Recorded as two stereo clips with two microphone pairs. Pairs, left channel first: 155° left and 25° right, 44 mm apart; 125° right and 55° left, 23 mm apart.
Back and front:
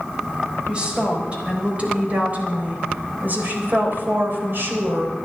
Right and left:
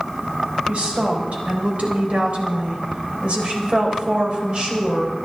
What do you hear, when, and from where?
0.7 s a woman speaking: 40° left, 4 m; by 5.2 s 5° left, 3.5 m